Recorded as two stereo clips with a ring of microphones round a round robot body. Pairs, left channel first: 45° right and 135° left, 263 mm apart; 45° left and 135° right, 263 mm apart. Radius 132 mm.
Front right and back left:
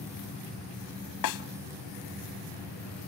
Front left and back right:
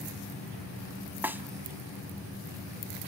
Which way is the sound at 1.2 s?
50° right.